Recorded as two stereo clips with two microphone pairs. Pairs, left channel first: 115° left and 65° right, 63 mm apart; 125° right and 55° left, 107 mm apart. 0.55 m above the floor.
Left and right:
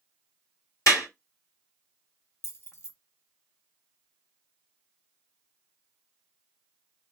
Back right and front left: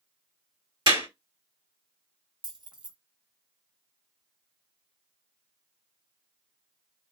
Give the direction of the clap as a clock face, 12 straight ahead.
9 o'clock.